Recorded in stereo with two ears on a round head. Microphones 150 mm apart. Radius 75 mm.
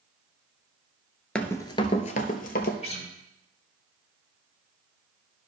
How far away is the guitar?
About 1.4 m.